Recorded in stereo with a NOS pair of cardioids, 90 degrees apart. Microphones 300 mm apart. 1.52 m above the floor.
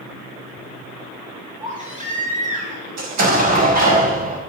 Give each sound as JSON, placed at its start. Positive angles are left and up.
{"t": 1.6, "sound": "a baby crying", "azimuth_deg": -25, "distance_m": 5.0}
{"t": 3.0, "sound": "an explosion", "azimuth_deg": -60, "distance_m": 5.5}